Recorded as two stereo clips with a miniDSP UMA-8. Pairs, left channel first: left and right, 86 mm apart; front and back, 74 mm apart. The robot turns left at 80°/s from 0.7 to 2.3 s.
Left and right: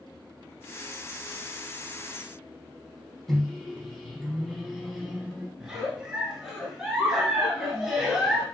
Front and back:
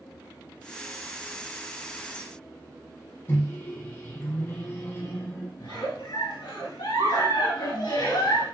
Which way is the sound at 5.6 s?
5° right.